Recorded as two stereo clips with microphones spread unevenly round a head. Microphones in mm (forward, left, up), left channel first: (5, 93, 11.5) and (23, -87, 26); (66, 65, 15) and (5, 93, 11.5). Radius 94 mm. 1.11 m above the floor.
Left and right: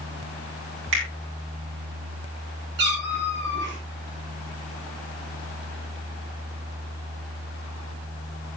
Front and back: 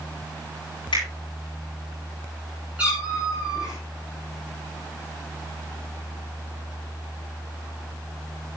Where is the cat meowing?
120° right, 5.5 m.